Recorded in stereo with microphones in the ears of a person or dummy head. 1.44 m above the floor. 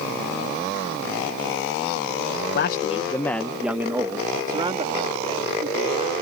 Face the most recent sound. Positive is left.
turn(degrees=-30)  # may be behind; listen again after turning